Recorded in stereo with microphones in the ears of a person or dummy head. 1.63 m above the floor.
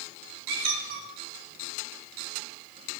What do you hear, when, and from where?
0.5 s a squeak: 60° right (ahead or behind), 2.5 m